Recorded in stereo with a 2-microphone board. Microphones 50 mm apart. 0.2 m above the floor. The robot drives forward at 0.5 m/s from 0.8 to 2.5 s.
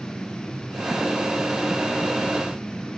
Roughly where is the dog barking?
No dog barking in this recording.